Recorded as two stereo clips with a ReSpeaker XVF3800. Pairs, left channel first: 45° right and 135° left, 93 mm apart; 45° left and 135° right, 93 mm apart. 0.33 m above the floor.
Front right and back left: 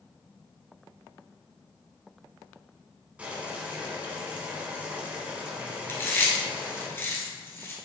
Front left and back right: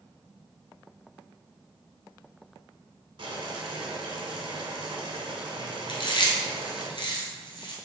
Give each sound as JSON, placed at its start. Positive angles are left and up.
{"t": 3.2, "sound": "boiling", "azimuth_deg": -150, "distance_m": 0.9}
{"t": 5.9, "sound": "chewing", "azimuth_deg": 20, "distance_m": 0.9}